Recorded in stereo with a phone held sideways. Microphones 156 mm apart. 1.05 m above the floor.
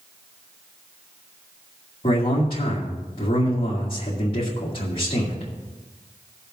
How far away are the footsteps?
No footsteps in this recording.